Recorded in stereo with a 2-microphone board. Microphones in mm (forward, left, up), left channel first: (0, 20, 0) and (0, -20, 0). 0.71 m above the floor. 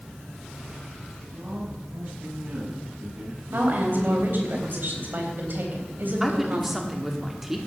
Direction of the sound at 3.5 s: 55° right (ahead or behind).